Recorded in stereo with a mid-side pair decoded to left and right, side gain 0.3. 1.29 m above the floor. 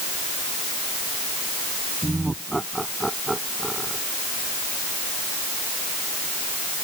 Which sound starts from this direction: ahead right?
Laughter, at 2.0 s.